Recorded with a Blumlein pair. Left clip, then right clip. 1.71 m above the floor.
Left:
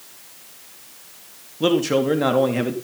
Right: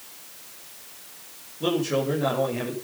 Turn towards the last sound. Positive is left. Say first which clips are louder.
# left 6 dB
turn(degrees=25)